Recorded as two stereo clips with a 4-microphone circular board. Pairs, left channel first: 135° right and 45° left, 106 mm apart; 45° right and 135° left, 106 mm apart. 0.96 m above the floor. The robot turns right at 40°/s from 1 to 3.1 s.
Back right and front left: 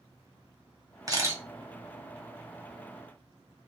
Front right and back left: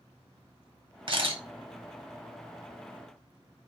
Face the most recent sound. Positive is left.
turn(degrees=180)